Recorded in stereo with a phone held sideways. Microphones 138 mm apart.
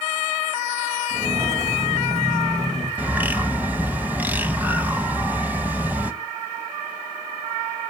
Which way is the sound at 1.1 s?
50° right (ahead or behind).